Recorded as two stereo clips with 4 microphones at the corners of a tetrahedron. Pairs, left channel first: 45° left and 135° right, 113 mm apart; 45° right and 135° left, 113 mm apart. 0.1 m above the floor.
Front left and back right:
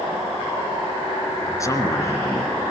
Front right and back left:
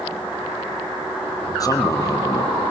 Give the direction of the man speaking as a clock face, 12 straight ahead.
12 o'clock.